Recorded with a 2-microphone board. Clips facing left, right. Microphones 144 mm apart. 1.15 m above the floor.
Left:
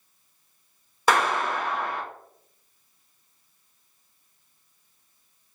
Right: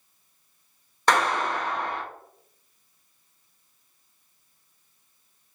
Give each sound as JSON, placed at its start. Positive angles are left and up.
{"t": 1.1, "sound": "a clap", "side_deg": 5, "distance_m": 1.0}